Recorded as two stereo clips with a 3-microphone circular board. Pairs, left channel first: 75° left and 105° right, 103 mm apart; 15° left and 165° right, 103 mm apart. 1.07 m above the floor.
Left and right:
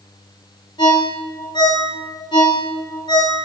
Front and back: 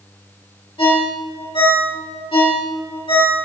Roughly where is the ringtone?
Ahead left.